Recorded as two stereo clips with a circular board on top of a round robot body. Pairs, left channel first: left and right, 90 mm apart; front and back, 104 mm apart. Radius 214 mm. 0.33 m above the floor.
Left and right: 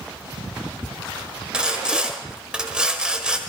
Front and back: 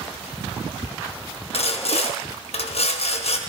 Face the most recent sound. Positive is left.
turn(degrees=-10)